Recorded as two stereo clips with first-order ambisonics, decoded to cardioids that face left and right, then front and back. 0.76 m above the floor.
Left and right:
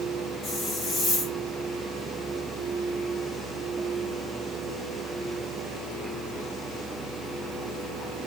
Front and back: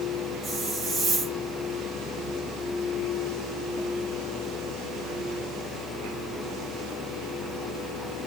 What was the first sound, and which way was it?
A hiss, 115° left.